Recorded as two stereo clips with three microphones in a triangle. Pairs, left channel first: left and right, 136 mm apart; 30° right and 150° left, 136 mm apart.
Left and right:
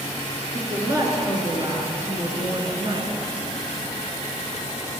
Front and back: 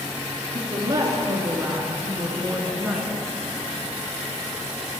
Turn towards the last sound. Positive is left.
turn(degrees=-125)